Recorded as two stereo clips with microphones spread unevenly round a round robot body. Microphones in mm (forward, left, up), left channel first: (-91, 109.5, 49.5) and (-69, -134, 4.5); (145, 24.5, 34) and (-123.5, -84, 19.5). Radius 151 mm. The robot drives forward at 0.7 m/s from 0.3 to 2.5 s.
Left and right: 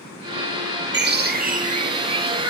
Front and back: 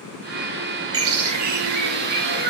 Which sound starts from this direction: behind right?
A bird, at 0.9 s.